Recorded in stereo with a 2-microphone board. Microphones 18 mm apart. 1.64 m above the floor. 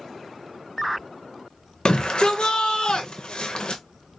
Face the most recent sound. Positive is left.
turn(degrees=55)  # may be behind; listen again after turning